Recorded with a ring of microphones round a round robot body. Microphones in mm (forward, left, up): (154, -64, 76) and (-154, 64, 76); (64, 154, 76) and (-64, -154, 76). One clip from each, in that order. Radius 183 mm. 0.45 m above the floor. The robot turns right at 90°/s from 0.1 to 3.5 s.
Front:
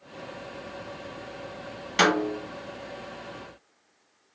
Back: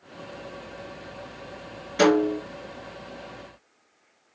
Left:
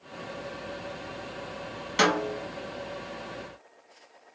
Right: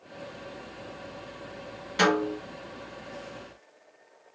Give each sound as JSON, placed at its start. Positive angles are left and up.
{"t": 2.0, "sound": "a snare drum", "azimuth_deg": 5, "distance_m": 1.7}